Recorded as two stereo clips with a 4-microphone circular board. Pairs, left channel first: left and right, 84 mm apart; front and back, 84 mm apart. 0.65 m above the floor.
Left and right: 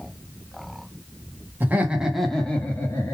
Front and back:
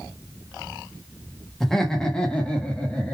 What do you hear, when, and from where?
1.6 s laughter: 80° right, 0.8 m; by 3.1 s 65° left, 1.0 m